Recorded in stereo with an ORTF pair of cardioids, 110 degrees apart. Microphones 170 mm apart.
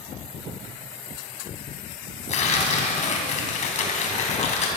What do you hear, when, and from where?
2.3 s tearing paper: 45° left, 3 m